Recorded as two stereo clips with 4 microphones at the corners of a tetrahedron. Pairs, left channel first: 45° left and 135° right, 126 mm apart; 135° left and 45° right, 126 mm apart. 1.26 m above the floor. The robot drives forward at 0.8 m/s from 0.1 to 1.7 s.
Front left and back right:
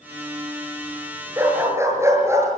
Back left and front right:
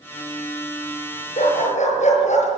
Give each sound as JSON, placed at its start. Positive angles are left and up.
{"t": 1.4, "sound": "a dog barking", "azimuth_deg": 155, "distance_m": 7.0}